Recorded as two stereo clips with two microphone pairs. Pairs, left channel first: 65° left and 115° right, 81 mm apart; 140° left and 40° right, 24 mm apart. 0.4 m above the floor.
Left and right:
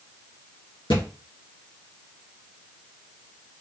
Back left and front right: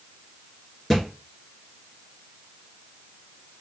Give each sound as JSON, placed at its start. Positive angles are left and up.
{"t": 0.9, "sound": "a thud", "azimuth_deg": 70, "distance_m": 2.5}